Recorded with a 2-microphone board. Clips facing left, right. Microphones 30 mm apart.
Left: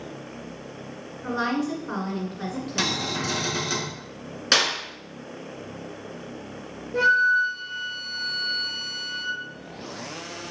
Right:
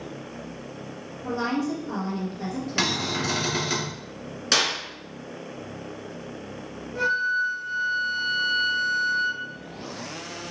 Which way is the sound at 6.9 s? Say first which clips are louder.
Left 5 dB; 75° left (ahead or behind).